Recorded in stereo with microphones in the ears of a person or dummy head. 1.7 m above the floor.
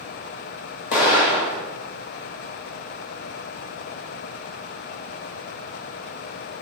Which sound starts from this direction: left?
An explosion, at 0.9 s.